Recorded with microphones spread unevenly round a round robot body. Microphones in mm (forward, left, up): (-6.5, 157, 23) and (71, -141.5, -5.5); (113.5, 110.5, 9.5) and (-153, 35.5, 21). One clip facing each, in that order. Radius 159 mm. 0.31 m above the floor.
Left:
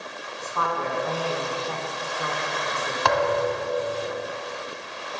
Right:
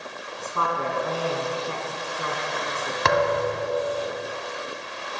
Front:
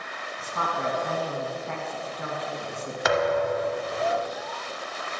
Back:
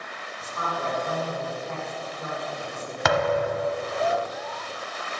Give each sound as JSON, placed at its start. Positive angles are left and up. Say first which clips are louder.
{"t": 0.4, "sound": "a woman speaking", "louder": "even, front 1 dB", "azimuth_deg": -15, "distance_m": 2.5}
{"t": 3.0, "sound": "a thud", "louder": "right 1 dB, even", "azimuth_deg": -140, "distance_m": 1.0}